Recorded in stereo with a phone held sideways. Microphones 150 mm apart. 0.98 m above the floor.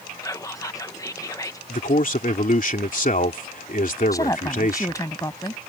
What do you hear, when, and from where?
0.2 s whispering: 20° left (ahead or behind)
1.7 s a man speaking: 60° left (ahead or behind)
4.1 s a woman speaking: 20° left (ahead or behind)